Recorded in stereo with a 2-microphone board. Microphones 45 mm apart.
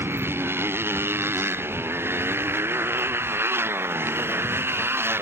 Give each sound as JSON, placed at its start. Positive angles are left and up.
{"t": 0.0, "sound": "a motorcycle", "side_deg": -65}